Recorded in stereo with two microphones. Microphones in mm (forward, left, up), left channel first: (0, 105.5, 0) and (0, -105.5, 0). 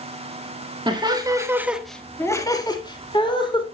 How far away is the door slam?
I don't hear a door slam.